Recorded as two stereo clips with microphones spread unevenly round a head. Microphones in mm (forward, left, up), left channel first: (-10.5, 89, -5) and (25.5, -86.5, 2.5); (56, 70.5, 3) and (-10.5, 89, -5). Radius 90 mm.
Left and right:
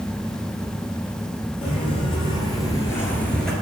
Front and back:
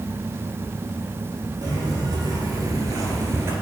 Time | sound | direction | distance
1.6 | footsteps | 155° left | 2.5 m